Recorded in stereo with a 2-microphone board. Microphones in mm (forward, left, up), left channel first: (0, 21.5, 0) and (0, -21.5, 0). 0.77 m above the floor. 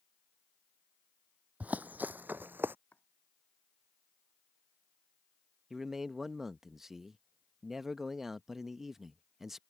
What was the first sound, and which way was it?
Running footsteps, 35° right (ahead or behind).